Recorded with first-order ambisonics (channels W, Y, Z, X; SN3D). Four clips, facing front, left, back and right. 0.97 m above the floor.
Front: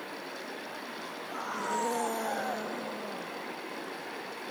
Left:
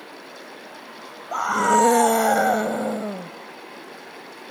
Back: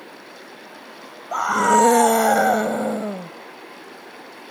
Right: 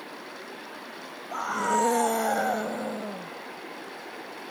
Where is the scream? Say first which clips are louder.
Left 7 dB, back 17 dB; 150° left.